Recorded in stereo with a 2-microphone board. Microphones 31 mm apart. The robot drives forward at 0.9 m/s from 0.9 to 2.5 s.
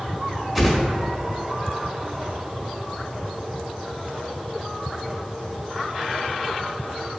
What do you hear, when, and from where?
0.6 s a whoosh: centre (ahead or behind), 1.1 m